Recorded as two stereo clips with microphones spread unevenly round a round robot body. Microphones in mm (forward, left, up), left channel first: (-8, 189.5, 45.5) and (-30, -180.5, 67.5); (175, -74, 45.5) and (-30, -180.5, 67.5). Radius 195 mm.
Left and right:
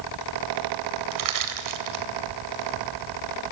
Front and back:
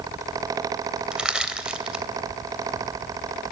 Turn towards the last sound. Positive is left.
turn(degrees=-65)